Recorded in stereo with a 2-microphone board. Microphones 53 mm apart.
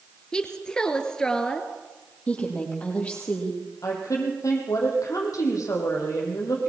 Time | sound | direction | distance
0.3 | a woman speaking | 15° left (ahead or behind) | 2.5 m
2.3 | a woman speaking | 25° left (ahead or behind) | 6 m
3.8 | a woman speaking | 75° left (ahead or behind) | 6 m